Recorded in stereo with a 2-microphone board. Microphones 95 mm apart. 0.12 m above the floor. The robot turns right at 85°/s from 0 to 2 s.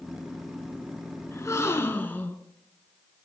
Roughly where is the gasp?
Left.